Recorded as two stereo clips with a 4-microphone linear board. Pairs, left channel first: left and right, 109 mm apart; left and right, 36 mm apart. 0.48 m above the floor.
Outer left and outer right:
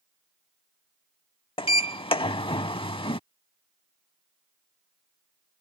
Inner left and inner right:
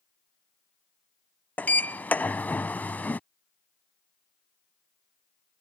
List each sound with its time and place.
1.6 s a sliding door: 55° left (ahead or behind)